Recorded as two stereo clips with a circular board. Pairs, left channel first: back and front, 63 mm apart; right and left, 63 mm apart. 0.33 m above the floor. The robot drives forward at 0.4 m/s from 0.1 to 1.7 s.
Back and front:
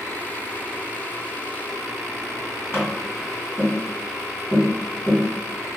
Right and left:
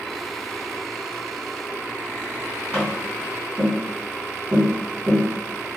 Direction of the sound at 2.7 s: 160° left.